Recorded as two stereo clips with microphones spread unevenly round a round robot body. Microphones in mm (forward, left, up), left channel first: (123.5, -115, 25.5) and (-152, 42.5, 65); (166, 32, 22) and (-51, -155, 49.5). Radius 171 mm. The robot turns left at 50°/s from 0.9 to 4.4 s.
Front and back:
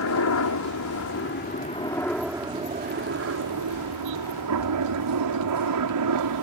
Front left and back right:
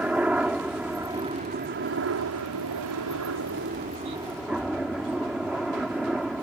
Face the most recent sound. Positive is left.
turn(degrees=130)